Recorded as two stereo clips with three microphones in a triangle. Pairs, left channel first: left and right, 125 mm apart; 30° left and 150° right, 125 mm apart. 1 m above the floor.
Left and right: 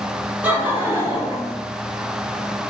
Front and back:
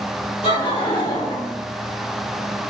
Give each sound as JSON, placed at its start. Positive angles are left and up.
{"t": 0.4, "sound": "laughter", "azimuth_deg": -15, "distance_m": 2.0}